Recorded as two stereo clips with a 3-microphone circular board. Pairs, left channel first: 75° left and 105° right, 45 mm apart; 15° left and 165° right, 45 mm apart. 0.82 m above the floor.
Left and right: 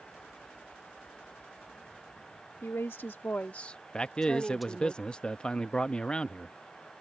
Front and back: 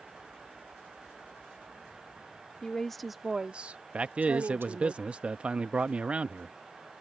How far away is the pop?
I don't hear a pop.